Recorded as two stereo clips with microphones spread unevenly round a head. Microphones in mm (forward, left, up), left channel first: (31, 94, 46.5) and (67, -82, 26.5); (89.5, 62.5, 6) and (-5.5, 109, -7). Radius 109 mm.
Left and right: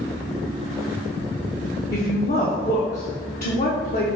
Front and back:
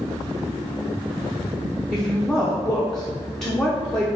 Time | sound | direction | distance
1.9 | a woman speaking | 60° left | 0.7 m